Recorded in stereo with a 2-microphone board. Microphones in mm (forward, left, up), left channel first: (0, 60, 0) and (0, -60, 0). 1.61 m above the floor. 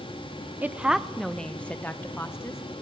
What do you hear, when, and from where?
0.6 s a woman speaking: 15° right (ahead or behind), 0.9 m; by 2.6 s 25° left (ahead or behind), 1.7 m